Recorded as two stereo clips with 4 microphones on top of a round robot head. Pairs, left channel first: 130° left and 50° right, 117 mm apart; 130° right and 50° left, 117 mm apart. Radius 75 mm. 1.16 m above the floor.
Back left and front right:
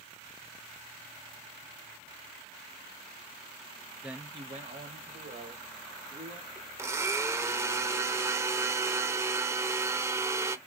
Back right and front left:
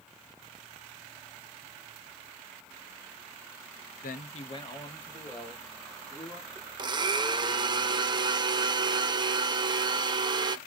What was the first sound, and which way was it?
A man speaking, 135° right.